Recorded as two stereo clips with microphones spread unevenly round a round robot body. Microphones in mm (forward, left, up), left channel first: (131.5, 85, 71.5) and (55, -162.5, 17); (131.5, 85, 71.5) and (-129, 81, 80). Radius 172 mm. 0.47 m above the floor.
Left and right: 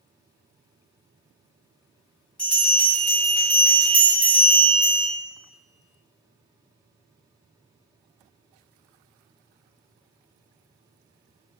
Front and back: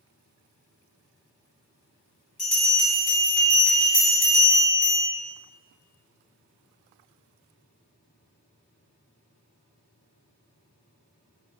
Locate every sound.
2.4 s a bell: 30° right, 1.5 m